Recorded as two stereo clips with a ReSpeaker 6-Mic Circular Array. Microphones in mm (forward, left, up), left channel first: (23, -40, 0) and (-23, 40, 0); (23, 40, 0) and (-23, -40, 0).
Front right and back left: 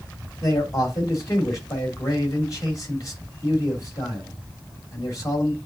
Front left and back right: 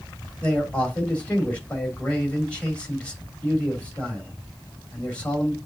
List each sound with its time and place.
0.4 s a man speaking: 15° right, 3 m